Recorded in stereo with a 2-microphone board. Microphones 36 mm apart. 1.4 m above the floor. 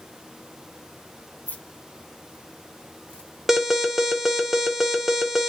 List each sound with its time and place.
1.5 s keys jangling: 55° left (ahead or behind), 1.1 m; by 3.3 s 25° left (ahead or behind), 0.9 m
3.5 s an alarm: 5° right (ahead or behind), 0.7 m